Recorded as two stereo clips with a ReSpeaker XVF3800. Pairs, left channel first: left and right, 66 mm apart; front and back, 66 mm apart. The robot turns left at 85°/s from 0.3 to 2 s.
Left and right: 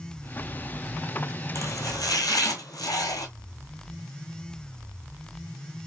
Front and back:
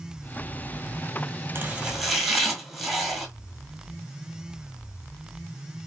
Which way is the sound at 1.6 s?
130° left.